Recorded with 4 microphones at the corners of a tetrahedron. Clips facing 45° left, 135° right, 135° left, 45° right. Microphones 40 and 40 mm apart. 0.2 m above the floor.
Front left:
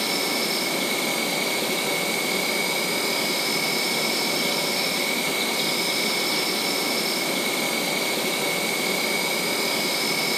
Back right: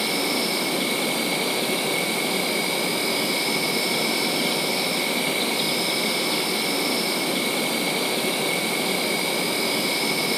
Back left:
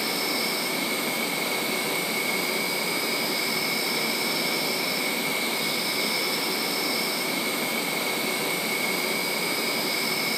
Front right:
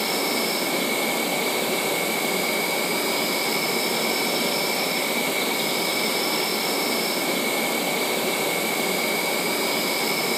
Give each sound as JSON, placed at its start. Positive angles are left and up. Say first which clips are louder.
{"t": 0.0, "sound": "an insect", "louder": "back right 1 dB, front right 3 dB", "azimuth_deg": -65, "distance_m": 0.9}